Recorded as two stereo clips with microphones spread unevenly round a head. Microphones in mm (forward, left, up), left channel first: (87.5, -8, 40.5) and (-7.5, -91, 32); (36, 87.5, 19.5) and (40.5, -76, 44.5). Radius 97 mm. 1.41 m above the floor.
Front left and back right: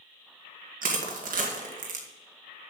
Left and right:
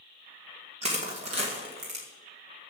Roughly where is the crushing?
Behind right.